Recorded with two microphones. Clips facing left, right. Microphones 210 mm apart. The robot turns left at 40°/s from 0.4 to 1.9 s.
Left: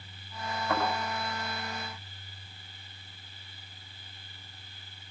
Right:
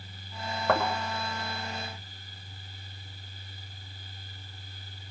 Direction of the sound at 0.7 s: 75° right (ahead or behind).